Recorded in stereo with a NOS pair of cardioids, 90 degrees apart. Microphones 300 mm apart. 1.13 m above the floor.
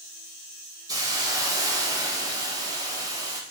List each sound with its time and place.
0.9 s a hiss: 10° right, 0.6 m